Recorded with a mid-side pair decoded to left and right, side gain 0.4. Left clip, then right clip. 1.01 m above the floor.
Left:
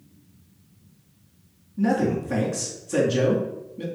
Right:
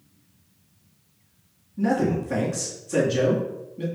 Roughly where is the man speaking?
Ahead.